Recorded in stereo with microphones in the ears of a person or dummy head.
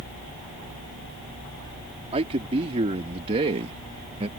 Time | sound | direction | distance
2.1 | a man speaking | 35° right (ahead or behind) | ?